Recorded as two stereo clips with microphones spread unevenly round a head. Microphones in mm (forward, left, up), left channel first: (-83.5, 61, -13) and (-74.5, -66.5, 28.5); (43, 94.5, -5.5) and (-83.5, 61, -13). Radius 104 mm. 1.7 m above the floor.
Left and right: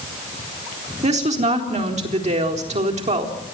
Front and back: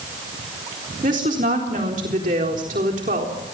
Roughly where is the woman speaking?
Right.